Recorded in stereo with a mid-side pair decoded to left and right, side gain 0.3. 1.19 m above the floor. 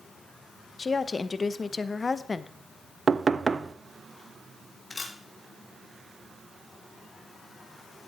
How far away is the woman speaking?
About 0.8 m.